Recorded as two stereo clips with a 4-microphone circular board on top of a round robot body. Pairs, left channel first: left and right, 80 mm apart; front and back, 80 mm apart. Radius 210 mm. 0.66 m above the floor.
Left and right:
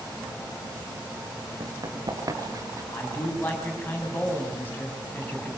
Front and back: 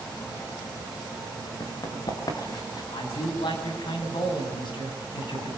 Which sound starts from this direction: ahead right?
Running footsteps, at 1.6 s.